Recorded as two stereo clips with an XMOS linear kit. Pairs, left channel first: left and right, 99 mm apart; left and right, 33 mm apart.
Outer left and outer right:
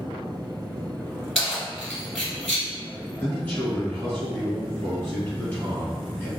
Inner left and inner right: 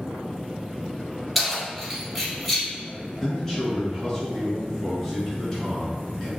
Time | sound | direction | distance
1.4 | keys jangling | 5° left (ahead or behind) | 1.3 m
3.2 | a man speaking | 20° left (ahead or behind) | 1.6 m